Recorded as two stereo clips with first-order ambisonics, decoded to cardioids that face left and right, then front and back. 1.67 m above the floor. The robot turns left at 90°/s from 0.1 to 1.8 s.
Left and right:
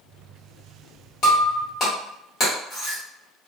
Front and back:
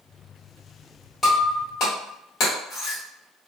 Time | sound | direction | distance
1.2 | breaking glass | 85° left | 1.5 m